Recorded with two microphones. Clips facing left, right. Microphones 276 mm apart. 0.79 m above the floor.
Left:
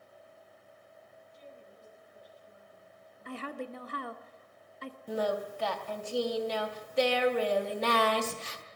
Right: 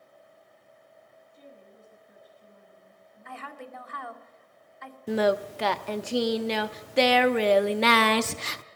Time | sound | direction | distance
1.3 | a woman speaking | 55° right (ahead or behind) | 9 m
3.2 | a woman speaking | 40° left (ahead or behind) | 1.7 m
5.1 | singing | 85° right | 0.7 m